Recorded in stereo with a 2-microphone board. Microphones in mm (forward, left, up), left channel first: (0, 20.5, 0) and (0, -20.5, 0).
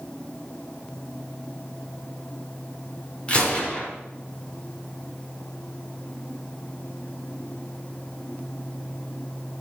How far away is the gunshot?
About 4 m.